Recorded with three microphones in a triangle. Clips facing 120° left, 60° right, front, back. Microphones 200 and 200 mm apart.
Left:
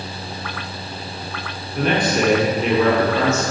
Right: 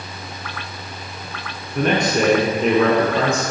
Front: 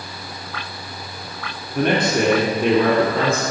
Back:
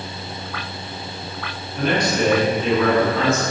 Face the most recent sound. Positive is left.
turn(degrees=-10)